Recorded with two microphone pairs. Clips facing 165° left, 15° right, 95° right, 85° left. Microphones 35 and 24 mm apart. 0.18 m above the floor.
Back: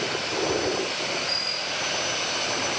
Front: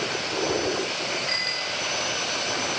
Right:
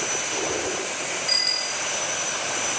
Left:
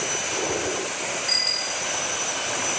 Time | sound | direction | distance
1.3 | a bicycle bell | 10° right | ?